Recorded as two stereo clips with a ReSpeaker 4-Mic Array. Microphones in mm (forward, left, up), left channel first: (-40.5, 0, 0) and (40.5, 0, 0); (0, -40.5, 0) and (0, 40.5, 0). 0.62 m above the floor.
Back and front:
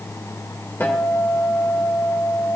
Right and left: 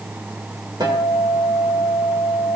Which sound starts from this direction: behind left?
A guitar, at 0.8 s.